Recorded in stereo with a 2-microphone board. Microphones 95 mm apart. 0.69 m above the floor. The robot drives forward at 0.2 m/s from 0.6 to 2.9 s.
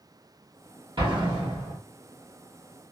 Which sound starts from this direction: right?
An explosion, at 1.0 s.